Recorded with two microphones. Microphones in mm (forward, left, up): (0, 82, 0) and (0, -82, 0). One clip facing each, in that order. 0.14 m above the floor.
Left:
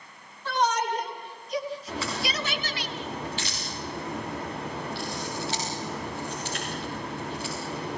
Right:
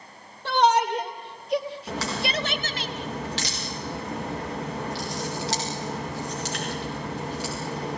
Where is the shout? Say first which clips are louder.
Right 5 dB; 75° right (ahead or behind), 4 m; by 2.9 s 45° right (ahead or behind), 2.5 m.